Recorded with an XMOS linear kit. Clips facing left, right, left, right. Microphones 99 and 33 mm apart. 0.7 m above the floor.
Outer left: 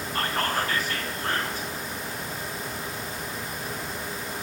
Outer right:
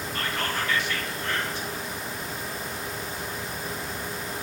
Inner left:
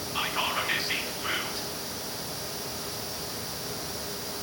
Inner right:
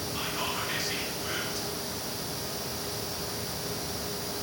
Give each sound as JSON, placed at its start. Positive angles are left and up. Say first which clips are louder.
{"t": 0.1, "sound": "whispering", "louder": "outer left 4 dB, inner left 5 dB", "side_deg": 45, "distance_m": 1.4}